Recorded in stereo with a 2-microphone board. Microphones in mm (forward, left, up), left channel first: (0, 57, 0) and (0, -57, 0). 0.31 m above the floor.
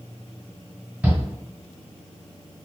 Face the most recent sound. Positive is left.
turn(degrees=-15)  # may be behind; listen again after turning